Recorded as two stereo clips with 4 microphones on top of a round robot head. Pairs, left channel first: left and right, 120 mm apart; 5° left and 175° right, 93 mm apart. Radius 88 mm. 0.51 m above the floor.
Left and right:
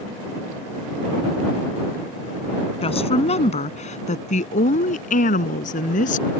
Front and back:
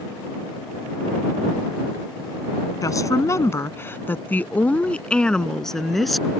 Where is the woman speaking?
55° left; by 6.3 s 95° left.